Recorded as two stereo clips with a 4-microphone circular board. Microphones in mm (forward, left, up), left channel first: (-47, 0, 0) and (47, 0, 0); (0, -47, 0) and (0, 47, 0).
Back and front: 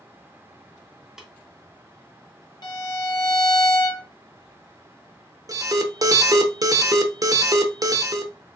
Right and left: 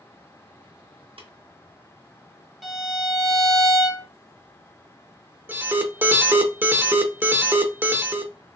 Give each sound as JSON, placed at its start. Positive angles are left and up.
{"t": 1.2, "sound": "tapping", "azimuth_deg": 85, "distance_m": 0.9}
{"t": 2.6, "sound": "a violin", "azimuth_deg": 180, "distance_m": 0.7}
{"t": 5.5, "sound": "an alarm", "azimuth_deg": 30, "distance_m": 0.5}